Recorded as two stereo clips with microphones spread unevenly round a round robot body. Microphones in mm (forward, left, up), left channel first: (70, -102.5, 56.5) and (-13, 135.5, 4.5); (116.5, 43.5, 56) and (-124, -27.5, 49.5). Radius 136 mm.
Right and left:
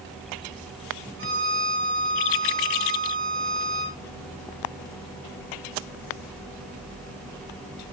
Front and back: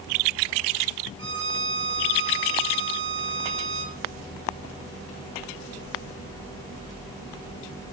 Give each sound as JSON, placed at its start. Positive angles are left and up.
{"t": 1.2, "sound": "a violin", "azimuth_deg": 155, "distance_m": 3.0}